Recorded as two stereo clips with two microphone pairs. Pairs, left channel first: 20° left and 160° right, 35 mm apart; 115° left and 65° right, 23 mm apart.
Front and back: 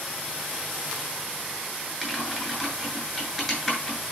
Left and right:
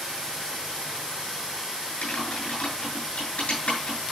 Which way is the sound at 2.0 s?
90° left.